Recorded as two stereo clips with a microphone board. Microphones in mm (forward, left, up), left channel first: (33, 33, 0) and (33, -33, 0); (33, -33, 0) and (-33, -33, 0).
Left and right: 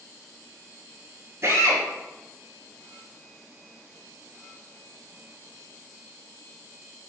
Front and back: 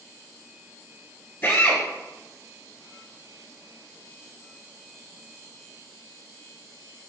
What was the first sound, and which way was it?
A drill, 55° right.